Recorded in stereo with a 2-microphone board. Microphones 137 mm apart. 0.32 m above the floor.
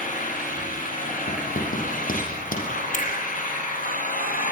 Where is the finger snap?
75° left (ahead or behind), 7 m.